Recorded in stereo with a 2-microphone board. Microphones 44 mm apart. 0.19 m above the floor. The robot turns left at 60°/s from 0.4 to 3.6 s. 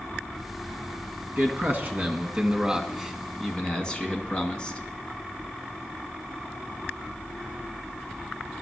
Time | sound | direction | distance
1.4 | a man speaking | 80° right | 1.8 m